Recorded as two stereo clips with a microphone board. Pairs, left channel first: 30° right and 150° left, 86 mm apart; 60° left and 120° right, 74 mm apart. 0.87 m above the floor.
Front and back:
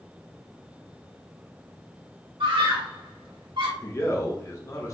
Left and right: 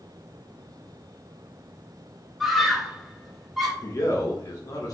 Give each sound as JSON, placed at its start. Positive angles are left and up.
{"t": 2.4, "sound": "a scream", "azimuth_deg": 150, "distance_m": 1.7}
{"t": 3.8, "sound": "a man speaking", "azimuth_deg": 25, "distance_m": 1.3}